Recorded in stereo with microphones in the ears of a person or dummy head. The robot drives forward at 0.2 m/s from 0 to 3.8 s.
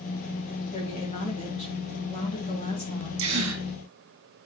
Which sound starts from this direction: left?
A woman speaking, at 0.7 s.